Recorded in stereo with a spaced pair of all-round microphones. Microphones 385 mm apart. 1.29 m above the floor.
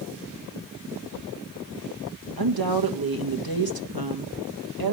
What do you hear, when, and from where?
2.4 s a woman speaking: 65° right (ahead or behind), 1.6 m